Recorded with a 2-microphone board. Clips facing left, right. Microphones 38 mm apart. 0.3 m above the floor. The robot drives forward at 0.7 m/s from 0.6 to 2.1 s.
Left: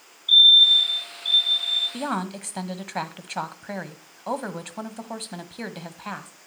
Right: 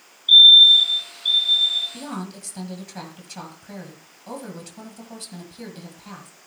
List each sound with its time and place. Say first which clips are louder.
0.3 s a fire alarm: right 4 dB; 30° right (ahead or behind), 2.5 m; by 1.8 s 35° right (ahead or behind), 2 m
1.9 s a woman speaking: left 5 dB; 50° left (ahead or behind), 1.5 m